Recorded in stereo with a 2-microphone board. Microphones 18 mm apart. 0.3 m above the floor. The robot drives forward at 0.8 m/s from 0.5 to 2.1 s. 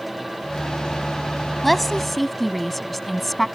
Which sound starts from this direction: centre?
A woman speaking, at 1.6 s.